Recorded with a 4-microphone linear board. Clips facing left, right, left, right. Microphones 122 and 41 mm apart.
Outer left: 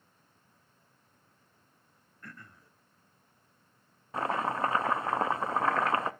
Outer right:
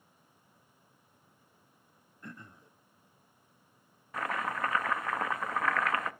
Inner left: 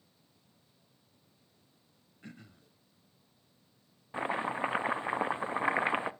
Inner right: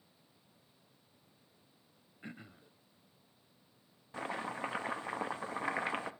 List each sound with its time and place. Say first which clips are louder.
2.2 s throat clearing: outer right 3 dB, inner right 2 dB; 20° right (ahead or behind), 0.6 m
4.1 s chopping: outer left 4 dB, inner left 6 dB; 30° left (ahead or behind), 0.6 m